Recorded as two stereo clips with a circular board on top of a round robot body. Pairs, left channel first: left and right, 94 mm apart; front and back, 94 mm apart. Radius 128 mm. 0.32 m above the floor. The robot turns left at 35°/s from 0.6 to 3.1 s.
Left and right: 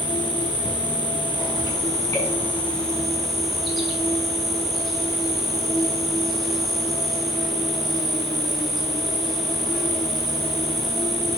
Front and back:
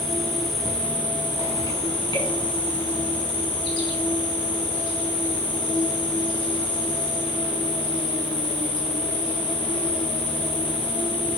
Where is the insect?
85° left, 5.5 m; by 11.4 s straight ahead, 5.5 m.